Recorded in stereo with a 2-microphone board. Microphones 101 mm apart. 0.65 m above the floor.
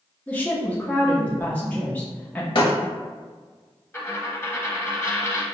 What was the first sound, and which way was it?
A woman speaking, 15° left (ahead or behind).